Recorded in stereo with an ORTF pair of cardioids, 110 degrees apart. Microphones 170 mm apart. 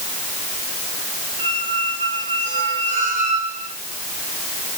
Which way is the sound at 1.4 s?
50° right.